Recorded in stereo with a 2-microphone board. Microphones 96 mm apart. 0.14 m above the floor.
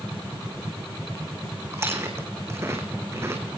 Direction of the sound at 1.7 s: 30° right (ahead or behind).